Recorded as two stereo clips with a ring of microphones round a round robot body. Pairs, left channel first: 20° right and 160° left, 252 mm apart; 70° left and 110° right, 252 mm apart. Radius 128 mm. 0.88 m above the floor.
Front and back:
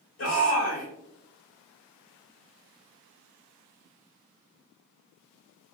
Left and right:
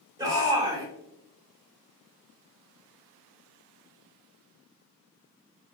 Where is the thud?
No thud in this recording.